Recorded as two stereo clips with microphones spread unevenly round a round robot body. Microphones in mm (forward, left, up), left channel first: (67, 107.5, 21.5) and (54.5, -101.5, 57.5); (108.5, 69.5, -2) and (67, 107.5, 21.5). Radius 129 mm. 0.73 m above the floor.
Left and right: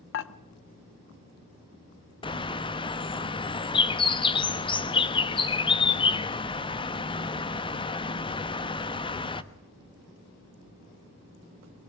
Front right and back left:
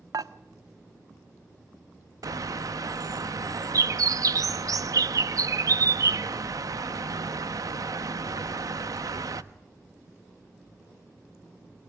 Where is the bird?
125° left, 0.9 m.